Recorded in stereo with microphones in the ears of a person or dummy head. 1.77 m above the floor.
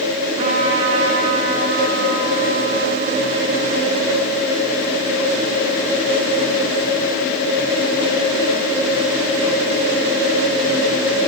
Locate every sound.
0.4 s a trumpet: 35° right (ahead or behind), 5.5 m